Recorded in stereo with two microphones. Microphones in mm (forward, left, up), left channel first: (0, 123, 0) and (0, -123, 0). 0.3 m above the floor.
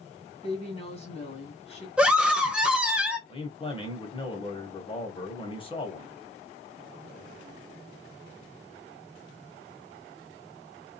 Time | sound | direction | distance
0.4 | a woman speaking | 25° left (ahead or behind) | 2 m
2.0 | a scream | 5° right (ahead or behind) | 0.9 m
3.3 | a man speaking | 20° left (ahead or behind) | 1.6 m